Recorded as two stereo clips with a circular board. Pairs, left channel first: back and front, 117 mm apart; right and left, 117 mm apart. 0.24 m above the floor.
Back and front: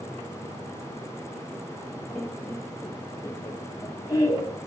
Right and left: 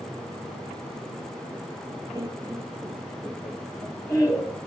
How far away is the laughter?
About 1.7 m.